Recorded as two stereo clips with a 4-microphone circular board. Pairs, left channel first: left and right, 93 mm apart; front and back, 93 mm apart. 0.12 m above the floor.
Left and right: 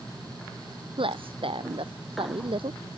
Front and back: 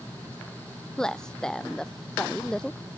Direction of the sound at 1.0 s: 80° right.